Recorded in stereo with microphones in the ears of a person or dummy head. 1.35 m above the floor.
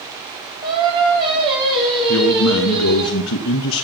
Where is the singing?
25° right (ahead or behind), 3.5 m.